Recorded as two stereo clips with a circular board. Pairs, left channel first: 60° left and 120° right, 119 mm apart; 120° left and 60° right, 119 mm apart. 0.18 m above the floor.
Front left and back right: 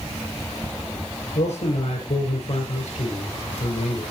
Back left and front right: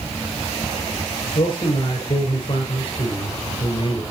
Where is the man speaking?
75° left, 5 m.